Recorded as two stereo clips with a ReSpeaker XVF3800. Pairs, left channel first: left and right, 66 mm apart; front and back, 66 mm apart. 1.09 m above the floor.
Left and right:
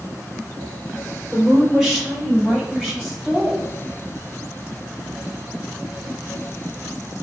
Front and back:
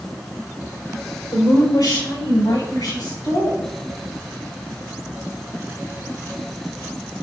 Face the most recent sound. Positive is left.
turn(degrees=0)